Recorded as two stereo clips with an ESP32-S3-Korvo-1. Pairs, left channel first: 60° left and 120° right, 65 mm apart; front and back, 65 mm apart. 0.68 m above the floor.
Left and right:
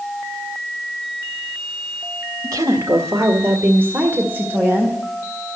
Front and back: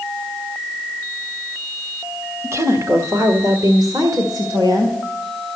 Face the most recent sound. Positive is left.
turn(degrees=175)